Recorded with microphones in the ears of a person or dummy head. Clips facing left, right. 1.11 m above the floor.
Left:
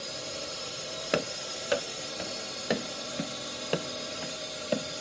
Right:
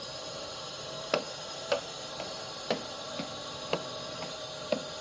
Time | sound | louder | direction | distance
0.0 | a drone | left 2 dB | 30° left (ahead or behind) | ?
1.1 | running footsteps | left 2 dB | 20° left (ahead or behind) | ?